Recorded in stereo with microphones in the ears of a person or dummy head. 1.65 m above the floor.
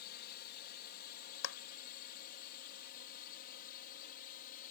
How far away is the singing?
I don't hear singing.